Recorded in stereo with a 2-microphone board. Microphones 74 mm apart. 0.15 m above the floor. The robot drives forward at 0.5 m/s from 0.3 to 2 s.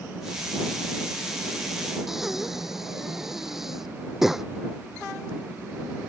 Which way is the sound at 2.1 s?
5° right (ahead or behind).